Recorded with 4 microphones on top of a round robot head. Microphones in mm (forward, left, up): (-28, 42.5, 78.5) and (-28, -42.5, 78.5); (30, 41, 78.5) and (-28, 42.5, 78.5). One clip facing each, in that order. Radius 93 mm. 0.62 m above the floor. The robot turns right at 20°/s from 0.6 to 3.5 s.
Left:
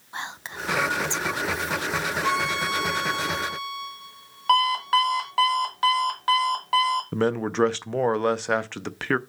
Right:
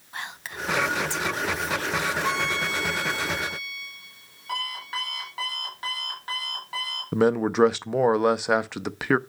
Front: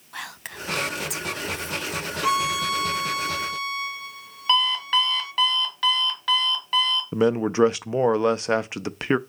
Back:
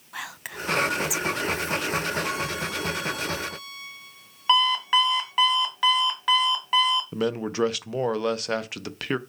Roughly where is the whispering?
Left.